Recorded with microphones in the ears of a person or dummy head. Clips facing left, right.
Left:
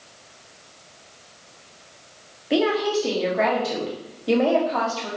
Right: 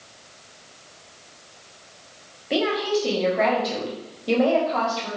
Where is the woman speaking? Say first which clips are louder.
Left 2 dB; 5° left (ahead or behind), 1.3 m.